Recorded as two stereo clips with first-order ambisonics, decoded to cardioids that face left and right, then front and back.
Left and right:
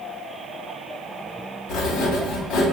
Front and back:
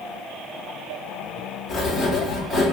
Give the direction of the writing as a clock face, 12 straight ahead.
9 o'clock.